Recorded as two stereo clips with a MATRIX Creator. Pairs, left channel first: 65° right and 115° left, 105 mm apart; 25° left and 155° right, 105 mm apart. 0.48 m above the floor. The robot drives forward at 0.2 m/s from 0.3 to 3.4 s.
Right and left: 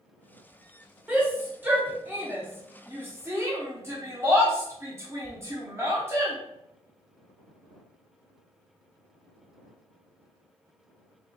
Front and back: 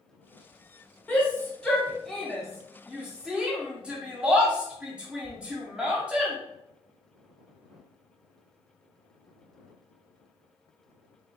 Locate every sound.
1.1 s a shout: 65° left, 1.0 m; by 6.4 s 135° left, 1.0 m